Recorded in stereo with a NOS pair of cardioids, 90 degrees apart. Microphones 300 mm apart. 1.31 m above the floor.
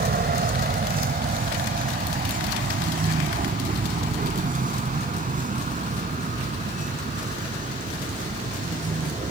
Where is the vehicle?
30° right; by 9.3 s 25° right.